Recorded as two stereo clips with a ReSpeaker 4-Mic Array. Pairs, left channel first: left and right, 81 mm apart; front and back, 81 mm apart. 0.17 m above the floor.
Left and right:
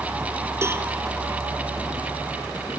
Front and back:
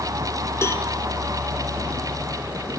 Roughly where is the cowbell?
Ahead right.